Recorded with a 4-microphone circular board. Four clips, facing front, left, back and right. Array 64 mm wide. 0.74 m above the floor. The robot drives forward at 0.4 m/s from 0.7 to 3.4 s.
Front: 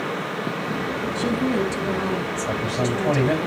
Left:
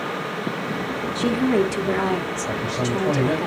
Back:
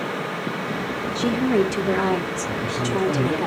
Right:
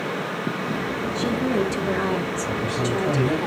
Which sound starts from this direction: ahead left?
A man speaking, at 2.5 s.